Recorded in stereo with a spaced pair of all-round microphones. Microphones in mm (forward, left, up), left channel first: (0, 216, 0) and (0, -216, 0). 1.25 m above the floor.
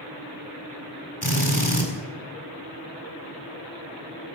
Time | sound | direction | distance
1.2 | a drill | 55° left (ahead or behind) | 4 m